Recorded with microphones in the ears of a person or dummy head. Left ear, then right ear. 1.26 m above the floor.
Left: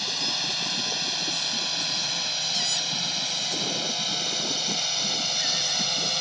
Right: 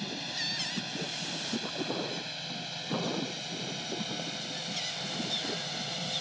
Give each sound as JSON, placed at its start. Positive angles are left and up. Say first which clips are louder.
{"t": 0.0, "sound": "a drone", "louder": "left 8 dB", "side_deg": 45}